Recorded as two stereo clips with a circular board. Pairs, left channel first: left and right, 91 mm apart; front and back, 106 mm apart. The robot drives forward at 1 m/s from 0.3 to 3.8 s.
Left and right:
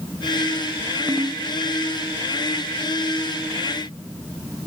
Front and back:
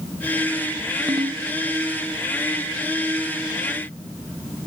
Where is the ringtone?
140° right, 0.9 m; by 1.4 s 150° right, 1.2 m.